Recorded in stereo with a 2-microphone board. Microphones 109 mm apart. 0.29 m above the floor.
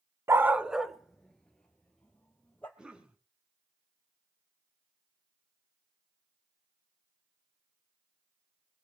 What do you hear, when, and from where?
0.3 s a dog barking: 25° right (ahead or behind), 0.5 m; by 2.7 s 10° left (ahead or behind), 2.5 m
2.8 s a cough: 10° right (ahead or behind), 2.5 m